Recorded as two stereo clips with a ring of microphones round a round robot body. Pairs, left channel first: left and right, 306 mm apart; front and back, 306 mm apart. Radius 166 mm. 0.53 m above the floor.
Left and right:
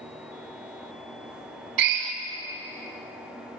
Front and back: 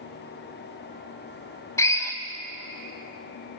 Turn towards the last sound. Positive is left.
turn(degrees=-80)